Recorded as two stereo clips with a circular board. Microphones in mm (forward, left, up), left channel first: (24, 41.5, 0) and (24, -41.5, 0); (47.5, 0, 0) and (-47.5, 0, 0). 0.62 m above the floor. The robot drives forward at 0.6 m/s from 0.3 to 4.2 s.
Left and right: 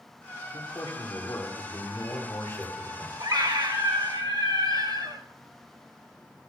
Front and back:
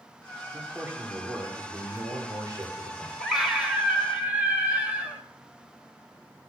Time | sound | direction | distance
0.5 | a man speaking | 110° left | 2.0 m
3.2 | a scream | 95° right | 2.5 m